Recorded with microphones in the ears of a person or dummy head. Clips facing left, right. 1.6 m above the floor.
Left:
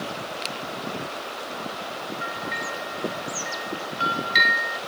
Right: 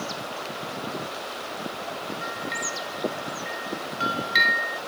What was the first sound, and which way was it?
A bell, 10° left (ahead or behind).